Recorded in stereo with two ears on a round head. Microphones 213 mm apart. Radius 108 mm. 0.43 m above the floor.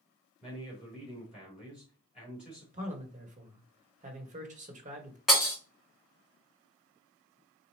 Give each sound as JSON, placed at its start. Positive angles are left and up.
{"t": 0.4, "sound": "a man speaking", "side_deg": -5, "distance_m": 3.5}
{"t": 2.7, "sound": "a man speaking", "side_deg": -35, "distance_m": 1.5}
{"t": 5.3, "sound": "breaking glass", "side_deg": 0, "distance_m": 3.0}